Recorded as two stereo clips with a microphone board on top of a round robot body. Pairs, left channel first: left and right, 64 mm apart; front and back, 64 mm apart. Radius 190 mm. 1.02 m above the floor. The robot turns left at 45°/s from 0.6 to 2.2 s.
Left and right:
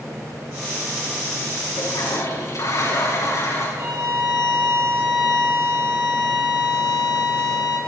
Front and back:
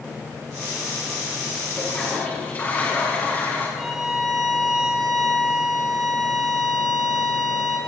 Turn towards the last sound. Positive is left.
turn(degrees=-90)